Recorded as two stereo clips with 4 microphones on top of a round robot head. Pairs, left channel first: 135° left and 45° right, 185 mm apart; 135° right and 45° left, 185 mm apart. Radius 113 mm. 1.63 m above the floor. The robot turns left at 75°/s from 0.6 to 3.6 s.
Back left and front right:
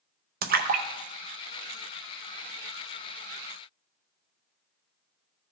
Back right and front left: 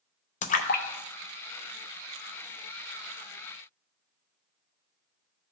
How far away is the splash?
About 0.7 m.